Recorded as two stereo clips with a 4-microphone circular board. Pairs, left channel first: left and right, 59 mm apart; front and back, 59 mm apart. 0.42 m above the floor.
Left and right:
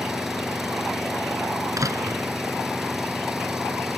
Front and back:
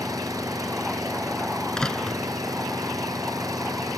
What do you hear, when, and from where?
0.0 s an engine running: 175° right
1.8 s a door slam: 80° right